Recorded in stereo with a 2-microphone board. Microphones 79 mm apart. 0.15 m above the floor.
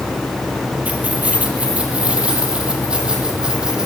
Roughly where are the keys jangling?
Centre.